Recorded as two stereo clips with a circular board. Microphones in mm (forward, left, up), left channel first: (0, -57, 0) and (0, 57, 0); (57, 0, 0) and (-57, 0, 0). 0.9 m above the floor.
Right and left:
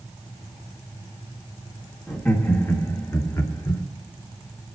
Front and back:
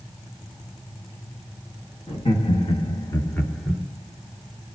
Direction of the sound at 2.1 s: 15° right.